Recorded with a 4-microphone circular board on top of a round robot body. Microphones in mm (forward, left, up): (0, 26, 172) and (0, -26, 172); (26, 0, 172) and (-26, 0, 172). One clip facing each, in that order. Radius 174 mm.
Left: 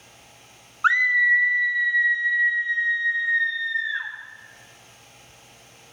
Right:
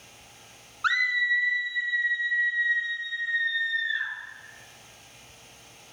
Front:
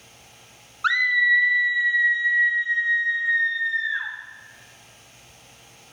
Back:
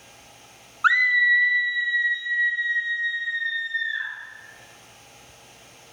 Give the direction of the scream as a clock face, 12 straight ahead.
8 o'clock.